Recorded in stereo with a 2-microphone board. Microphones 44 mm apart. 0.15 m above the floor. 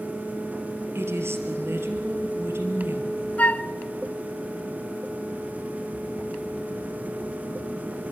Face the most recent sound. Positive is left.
turn(degrees=35)  # may be behind; listen again after turning